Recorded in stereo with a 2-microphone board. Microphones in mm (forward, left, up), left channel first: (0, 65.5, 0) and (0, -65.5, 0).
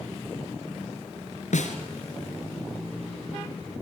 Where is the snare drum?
80° left, 2.5 m.